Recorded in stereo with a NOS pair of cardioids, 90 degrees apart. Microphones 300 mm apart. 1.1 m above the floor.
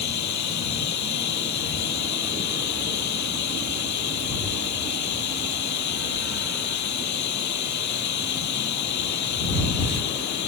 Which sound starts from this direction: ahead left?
Running water, at 0.0 s.